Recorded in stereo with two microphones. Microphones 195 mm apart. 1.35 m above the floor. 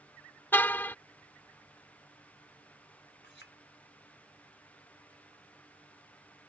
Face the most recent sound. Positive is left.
turn(degrees=75)  # may be behind; listen again after turning